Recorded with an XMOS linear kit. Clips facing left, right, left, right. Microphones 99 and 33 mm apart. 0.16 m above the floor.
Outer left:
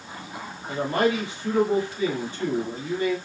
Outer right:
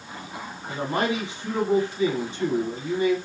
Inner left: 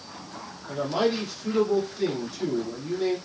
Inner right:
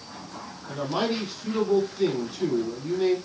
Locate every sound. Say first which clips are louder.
0.7 s a man speaking: outer left 3 dB, inner left 2 dB; 20° right (ahead or behind), 1.3 m